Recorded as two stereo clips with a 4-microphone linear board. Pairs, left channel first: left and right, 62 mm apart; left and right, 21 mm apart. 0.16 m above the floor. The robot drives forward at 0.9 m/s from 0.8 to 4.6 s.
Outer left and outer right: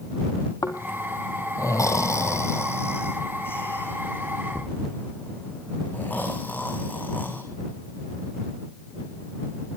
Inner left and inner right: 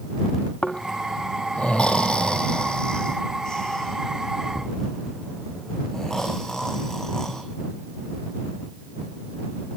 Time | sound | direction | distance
0.6 | snoring | 75° left (ahead or behind) | 2 m